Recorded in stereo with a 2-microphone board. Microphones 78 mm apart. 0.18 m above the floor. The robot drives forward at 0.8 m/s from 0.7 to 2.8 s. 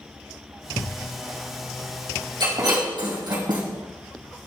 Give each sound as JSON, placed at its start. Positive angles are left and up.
{"t": 0.8, "sound": "a thud", "side_deg": 15, "distance_m": 1.0}
{"t": 2.4, "sound": "breaking glass", "side_deg": -80, "distance_m": 3.5}